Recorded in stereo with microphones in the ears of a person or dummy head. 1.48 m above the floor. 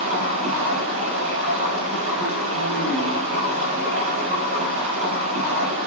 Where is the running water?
40° right (ahead or behind), 9 m.